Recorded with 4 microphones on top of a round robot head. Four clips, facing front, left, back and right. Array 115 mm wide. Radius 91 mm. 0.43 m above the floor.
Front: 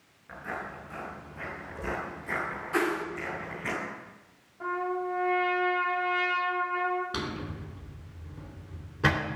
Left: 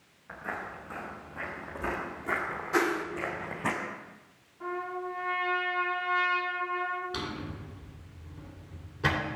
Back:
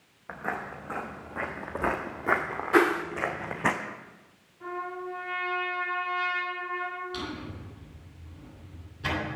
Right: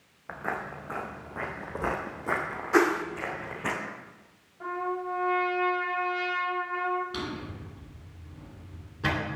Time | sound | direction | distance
0.3 | footsteps | 130° right | 2 m
2.7 | a whoosh | 150° right | 0.9 m
4.6 | a trumpet | 25° right | 3 m
7.1 | a drawer | 5° left | 3 m